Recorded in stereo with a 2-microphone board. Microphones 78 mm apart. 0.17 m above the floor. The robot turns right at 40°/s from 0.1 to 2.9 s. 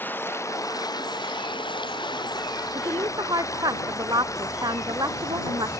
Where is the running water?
25° left; by 5.8 s 135° left.